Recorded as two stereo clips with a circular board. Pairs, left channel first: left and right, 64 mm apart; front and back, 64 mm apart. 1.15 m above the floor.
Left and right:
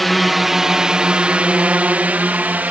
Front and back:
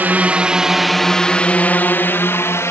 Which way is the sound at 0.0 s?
175° left.